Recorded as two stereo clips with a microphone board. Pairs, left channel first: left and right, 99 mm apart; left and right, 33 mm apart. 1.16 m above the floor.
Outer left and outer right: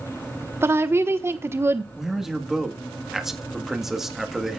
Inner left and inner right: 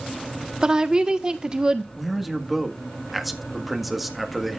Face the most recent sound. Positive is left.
turn(degrees=-5)  # may be behind; listen again after turning